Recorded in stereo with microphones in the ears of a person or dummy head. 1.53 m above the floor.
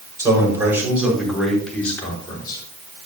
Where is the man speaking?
15° right (ahead or behind), 5.5 m; by 2.6 s 30° left (ahead or behind), 4.5 m.